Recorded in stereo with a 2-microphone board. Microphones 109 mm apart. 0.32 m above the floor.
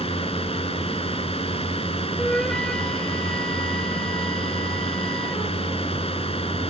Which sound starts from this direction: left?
A drone, at 0.0 s.